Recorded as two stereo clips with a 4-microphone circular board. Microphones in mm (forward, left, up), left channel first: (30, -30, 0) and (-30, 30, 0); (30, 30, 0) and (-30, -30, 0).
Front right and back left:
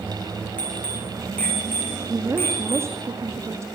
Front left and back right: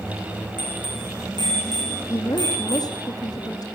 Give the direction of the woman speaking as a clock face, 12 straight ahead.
9 o'clock.